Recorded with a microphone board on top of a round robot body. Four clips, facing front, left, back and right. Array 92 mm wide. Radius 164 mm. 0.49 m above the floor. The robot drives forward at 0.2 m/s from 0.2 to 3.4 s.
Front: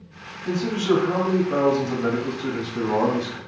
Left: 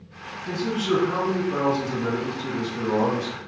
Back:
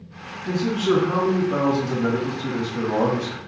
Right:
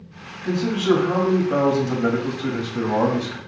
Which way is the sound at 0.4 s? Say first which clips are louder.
Right 5 dB, back 1 dB; 70° right.